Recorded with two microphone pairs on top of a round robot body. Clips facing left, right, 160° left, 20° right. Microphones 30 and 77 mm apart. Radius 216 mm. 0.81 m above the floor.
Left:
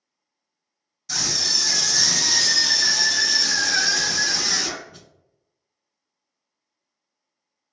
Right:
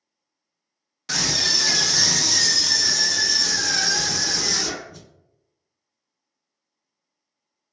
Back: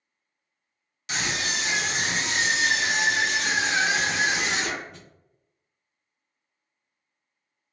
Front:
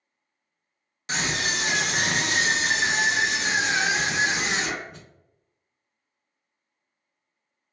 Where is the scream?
75° right, 0.8 m; by 5.0 s 65° left, 1.7 m.